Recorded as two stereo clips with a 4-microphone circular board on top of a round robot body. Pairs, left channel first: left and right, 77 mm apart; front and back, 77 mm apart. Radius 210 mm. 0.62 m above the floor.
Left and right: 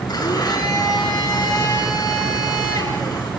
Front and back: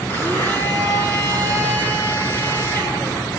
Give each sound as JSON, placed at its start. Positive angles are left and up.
{"t": 0.1, "sound": "a blender", "azimuth_deg": 60, "distance_m": 9.5}